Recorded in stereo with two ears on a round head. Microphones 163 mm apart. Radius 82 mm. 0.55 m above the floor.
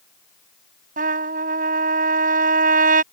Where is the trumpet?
55° right (ahead or behind).